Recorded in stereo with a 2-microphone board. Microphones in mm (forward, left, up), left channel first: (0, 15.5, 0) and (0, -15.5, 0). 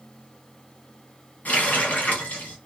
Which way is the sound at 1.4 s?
55° left (ahead or behind).